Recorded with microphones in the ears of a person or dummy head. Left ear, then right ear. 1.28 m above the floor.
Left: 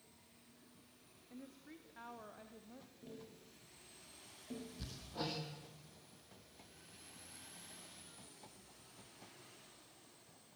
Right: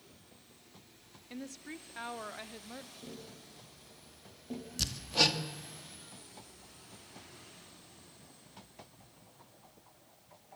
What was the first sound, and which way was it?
A woman speaking, 65° right (ahead or behind).